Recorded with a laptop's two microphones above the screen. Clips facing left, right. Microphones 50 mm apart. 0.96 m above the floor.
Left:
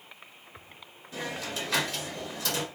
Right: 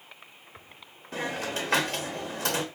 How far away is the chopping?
No chopping in this recording.